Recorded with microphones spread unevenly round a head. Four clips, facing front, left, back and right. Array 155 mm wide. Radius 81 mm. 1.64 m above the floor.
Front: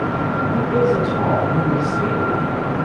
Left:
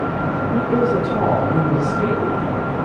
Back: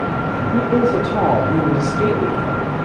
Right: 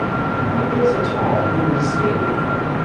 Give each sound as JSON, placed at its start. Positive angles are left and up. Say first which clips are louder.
{"t": 0.5, "sound": "a woman speaking", "louder": "even, back 2 dB", "azimuth_deg": 150, "distance_m": 3.0}